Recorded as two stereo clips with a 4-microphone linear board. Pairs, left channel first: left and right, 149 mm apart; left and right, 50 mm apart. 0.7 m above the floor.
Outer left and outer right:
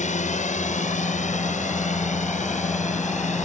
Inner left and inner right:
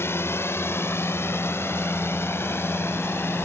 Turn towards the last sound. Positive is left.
turn(degrees=55)  # may be behind; listen again after turning